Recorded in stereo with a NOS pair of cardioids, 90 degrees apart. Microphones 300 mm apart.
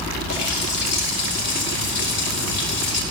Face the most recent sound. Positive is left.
turn(degrees=60)